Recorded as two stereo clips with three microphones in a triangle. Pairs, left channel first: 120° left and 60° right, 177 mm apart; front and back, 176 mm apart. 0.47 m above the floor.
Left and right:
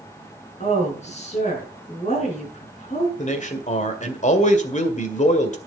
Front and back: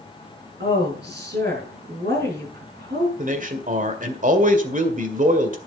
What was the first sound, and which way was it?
A woman speaking, 165° left.